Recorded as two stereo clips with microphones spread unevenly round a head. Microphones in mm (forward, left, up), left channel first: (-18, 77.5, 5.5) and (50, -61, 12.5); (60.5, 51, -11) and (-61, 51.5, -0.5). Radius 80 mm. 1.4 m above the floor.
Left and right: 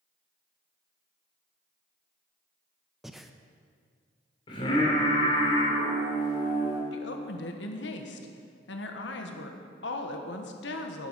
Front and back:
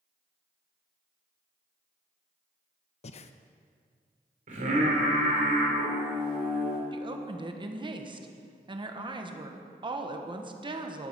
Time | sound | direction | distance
3.0 | breathing | 20° left | 0.6 m
4.5 | singing | straight behind | 3 m
6.9 | a woman speaking | 130° left | 1.3 m